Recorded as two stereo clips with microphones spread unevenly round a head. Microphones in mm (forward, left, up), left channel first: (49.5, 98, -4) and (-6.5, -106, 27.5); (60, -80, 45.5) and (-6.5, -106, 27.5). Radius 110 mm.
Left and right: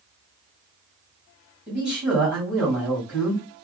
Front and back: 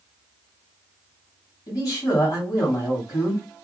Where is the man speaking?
10° right, 1.6 m.